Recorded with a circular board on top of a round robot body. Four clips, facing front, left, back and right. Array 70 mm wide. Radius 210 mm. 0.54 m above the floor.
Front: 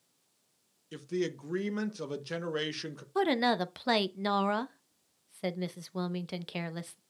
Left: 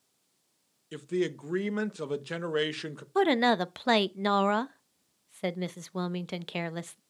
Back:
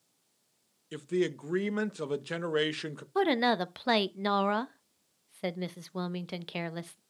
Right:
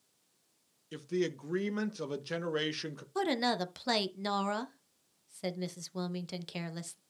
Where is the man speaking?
140° left, 1.3 m.